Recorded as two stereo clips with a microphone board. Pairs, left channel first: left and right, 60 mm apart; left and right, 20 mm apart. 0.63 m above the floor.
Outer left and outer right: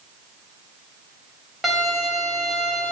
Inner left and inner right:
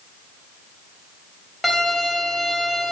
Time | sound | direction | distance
1.6 | a violin | 5° right (ahead or behind) | 0.9 m